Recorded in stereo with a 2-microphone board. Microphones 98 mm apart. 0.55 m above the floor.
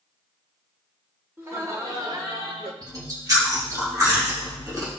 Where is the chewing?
35° right (ahead or behind), 3 m.